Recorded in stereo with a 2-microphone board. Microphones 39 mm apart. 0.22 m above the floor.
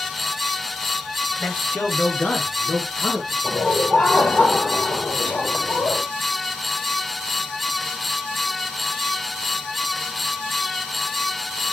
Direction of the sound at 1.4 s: 70° left (ahead or behind).